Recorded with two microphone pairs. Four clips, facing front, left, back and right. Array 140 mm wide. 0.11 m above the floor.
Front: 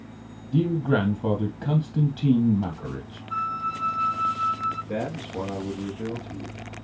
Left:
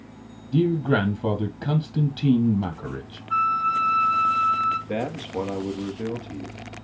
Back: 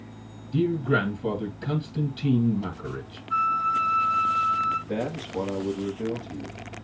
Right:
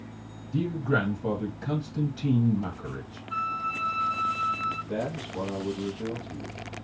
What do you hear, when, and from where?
0.5 s a man speaking: 65° left, 2.5 m
3.3 s a flute: 110° left, 1.0 m
4.9 s a man speaking: 100° left, 2.5 m